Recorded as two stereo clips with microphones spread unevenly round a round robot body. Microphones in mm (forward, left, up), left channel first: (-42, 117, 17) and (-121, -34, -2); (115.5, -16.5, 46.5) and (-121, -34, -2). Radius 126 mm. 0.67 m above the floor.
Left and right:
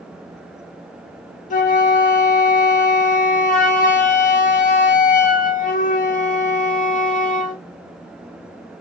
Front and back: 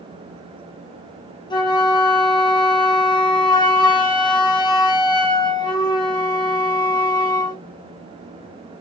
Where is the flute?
80° left, 0.7 m.